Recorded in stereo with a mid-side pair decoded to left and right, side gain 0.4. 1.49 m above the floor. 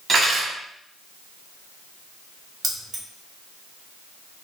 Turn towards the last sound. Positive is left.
turn(degrees=-50)